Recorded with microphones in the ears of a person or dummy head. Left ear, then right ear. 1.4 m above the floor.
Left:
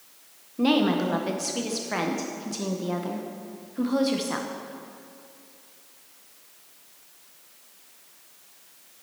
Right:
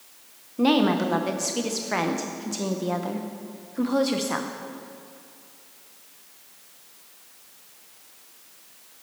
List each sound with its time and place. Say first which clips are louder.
0.6 s a woman speaking: right 2 dB; 10° right (ahead or behind), 0.7 m